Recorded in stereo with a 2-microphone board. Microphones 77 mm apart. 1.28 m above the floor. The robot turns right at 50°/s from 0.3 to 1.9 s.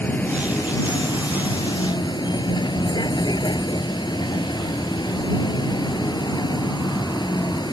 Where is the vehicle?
20° left; by 7.7 s 100° left.